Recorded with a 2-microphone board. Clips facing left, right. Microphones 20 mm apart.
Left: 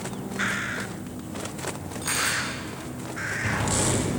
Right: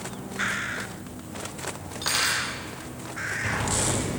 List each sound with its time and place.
2.0 s cutlery clinking: 40° right (ahead or behind), 5.5 m